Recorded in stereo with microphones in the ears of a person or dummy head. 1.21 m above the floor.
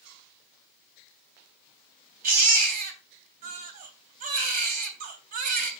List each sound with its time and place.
2.2 s a baby crying: 45° right (ahead or behind), 3 m